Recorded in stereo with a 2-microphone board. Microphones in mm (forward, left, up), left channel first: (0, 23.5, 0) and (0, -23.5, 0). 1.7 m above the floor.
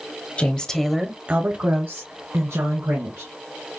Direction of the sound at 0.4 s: 30° left (ahead or behind).